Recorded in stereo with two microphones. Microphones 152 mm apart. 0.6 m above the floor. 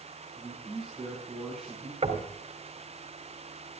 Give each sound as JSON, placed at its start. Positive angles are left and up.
{"t": 0.4, "sound": "a man speaking", "side_deg": 0, "distance_m": 6.0}
{"t": 2.0, "sound": "knocking", "side_deg": -40, "distance_m": 3.0}